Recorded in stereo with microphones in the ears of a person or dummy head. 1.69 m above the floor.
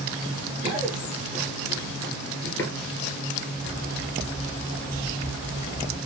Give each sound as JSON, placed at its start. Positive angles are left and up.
{"t": 0.6, "sound": "running footsteps", "side_deg": -20, "distance_m": 2.0}
{"t": 3.6, "sound": "a bird", "side_deg": -40, "distance_m": 1.8}